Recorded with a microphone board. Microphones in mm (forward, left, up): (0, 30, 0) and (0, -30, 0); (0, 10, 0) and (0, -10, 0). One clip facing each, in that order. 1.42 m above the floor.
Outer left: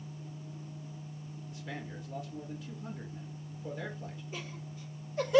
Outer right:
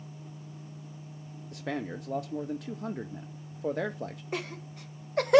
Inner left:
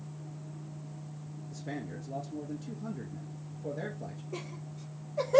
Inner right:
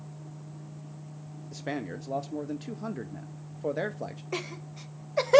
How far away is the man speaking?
About 0.5 m.